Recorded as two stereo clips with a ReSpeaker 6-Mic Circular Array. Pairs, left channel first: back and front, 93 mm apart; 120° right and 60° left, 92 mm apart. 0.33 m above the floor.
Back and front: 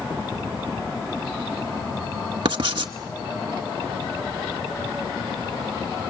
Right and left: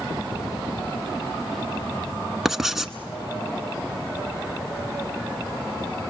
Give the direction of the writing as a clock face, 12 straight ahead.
1 o'clock.